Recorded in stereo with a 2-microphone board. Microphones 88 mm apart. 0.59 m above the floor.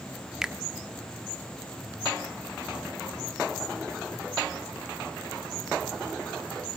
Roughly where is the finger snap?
Centre.